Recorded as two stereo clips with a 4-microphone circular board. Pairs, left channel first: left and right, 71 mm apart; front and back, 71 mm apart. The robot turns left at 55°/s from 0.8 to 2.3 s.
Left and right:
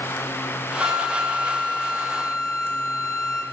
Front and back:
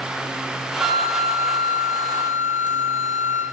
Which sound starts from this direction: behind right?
A flute, at 0.8 s.